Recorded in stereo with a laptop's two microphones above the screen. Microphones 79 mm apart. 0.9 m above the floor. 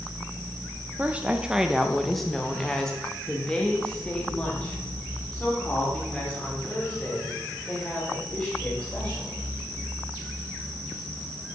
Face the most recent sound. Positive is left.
turn(degrees=20)  # may be behind; listen again after turning